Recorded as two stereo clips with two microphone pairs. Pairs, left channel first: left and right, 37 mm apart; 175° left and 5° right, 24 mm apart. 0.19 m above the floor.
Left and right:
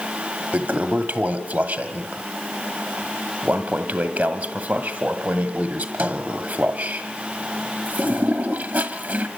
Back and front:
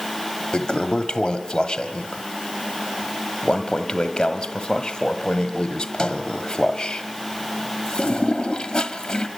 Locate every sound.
0.5 s a toilet flushing: 115° right, 1.6 m